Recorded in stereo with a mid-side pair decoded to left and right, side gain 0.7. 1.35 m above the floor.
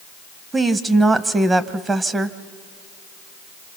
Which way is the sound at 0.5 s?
20° right.